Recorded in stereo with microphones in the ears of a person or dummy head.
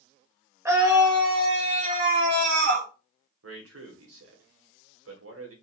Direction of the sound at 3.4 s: 80° right.